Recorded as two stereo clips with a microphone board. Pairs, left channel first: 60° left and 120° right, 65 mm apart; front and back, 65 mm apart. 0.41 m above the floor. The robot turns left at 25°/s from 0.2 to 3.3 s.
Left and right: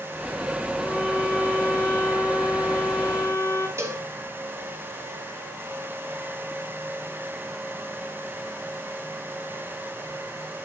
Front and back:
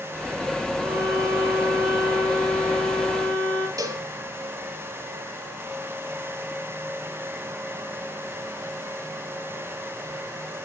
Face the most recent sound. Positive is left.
turn(degrees=-160)